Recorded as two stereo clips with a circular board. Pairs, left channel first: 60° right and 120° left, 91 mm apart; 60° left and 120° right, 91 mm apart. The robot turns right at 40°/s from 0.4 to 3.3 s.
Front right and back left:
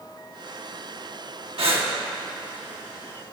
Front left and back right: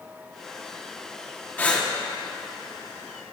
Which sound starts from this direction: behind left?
Breathing, at 1.6 s.